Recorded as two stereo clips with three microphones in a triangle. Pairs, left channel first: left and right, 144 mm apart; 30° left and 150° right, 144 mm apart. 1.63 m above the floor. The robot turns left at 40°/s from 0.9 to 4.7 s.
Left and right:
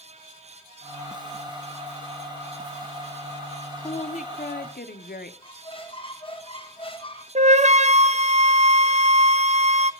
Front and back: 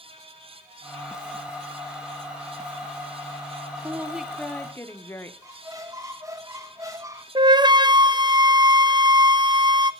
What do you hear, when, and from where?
3.8 s a woman speaking: 140° left, 1.1 m; by 5.3 s 105° left, 1.1 m
5.4 s a squeak: 140° left, 1.6 m
7.3 s a flute: 100° right, 0.6 m